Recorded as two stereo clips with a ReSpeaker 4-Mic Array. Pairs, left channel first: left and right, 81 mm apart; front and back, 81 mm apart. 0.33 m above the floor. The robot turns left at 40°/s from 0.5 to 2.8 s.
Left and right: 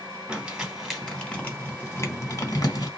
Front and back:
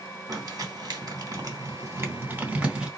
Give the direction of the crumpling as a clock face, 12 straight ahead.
6 o'clock.